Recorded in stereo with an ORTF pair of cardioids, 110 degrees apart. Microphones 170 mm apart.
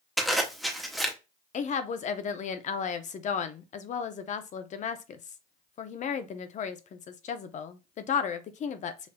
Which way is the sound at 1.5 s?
45° left.